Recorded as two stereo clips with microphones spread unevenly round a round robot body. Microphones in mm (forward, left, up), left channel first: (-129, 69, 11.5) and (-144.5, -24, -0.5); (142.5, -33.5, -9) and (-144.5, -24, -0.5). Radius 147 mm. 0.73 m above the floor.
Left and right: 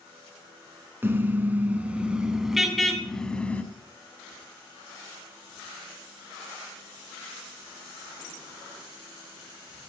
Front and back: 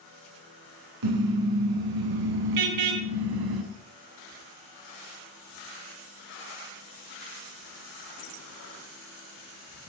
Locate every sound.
1.0 s a car horn: 170° right, 4 m; by 3.6 s 155° left, 2.5 m